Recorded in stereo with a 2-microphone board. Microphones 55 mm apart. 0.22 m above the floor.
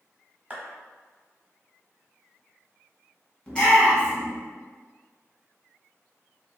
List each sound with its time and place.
0.5 s a clap: 25° right (ahead or behind), 1.1 m
3.5 s a shout: 20° left (ahead or behind), 1.9 m